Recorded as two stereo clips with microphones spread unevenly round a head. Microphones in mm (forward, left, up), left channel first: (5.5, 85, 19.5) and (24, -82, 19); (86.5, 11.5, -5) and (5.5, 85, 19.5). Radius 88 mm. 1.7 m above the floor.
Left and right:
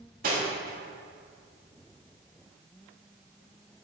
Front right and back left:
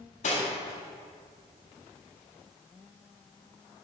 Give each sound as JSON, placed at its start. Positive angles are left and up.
{"t": 0.2, "sound": "cutlery clinking", "azimuth_deg": -60, "distance_m": 1.6}